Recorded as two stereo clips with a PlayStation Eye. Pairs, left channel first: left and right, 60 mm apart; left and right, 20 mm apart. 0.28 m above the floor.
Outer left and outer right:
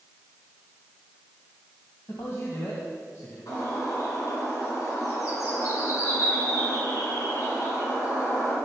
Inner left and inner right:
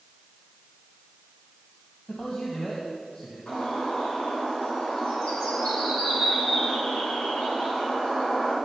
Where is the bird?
65° left (ahead or behind), 3.5 m.